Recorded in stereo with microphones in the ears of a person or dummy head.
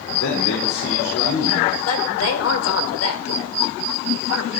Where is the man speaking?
85° left, 3.5 m.